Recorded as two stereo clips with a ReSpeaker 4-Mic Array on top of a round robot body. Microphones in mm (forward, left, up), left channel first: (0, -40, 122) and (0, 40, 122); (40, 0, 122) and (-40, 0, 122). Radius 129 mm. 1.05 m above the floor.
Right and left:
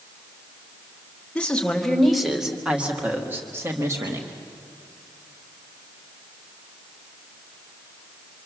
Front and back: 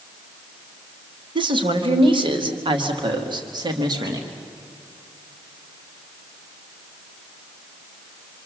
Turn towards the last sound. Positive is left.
turn(degrees=140)